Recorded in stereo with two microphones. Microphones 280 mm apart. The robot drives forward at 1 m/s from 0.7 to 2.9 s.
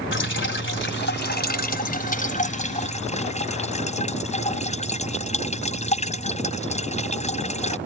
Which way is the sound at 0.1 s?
45° left (ahead or behind).